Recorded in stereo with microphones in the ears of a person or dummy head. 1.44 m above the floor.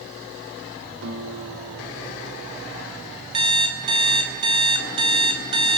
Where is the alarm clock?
25° right (ahead or behind), 1.2 m.